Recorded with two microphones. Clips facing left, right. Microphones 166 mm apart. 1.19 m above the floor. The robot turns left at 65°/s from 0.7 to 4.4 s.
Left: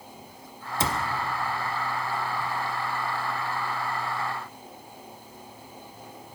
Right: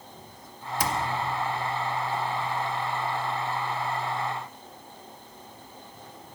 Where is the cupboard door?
25° left (ahead or behind), 0.7 m; by 1.0 s 30° left (ahead or behind), 0.7 m.